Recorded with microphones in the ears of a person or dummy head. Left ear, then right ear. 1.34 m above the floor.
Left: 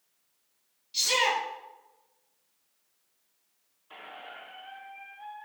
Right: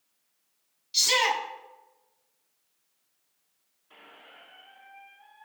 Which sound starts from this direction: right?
A shout, at 0.9 s.